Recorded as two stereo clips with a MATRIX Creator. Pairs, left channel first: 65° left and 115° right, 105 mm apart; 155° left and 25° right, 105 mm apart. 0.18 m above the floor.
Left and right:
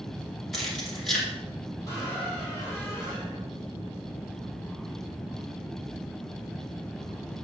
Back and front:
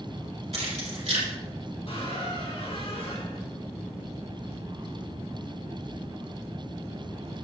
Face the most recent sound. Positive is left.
turn(degrees=125)